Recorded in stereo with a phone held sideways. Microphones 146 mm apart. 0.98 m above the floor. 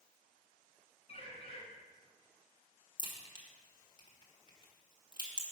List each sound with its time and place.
1.1 s a bird: 45° left (ahead or behind), 2.0 m
3.0 s a crack: 30° left (ahead or behind), 1.4 m